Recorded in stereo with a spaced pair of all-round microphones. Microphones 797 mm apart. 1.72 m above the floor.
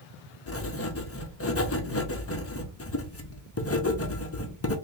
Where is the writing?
20° left (ahead or behind), 0.5 m.